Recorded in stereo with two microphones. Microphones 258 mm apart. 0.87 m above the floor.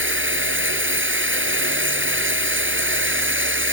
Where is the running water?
50° right (ahead or behind).